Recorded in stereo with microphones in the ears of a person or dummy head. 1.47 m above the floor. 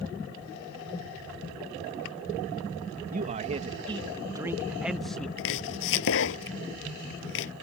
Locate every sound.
3.1 s a man speaking: 35° right (ahead or behind); by 5.3 s 10° left (ahead or behind)
5.4 s chopping: 70° left (ahead or behind)